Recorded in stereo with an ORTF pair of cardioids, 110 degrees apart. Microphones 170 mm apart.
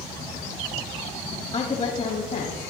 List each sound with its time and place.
1.5 s a woman speaking: 35° left, 2 m; by 2.7 s 45° left, 3 m